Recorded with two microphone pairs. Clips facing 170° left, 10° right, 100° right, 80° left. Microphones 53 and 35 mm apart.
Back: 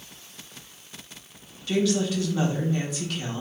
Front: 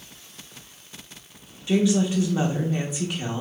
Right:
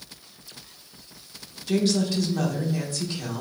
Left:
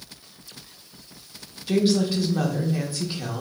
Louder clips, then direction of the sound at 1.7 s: Front 3 dB, left 2 dB; 25° left.